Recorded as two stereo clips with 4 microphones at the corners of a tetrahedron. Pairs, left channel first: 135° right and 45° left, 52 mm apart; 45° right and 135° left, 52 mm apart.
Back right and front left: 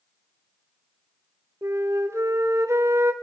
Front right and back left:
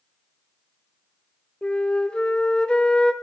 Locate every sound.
1.6 s a flute: 25° left, 1.4 m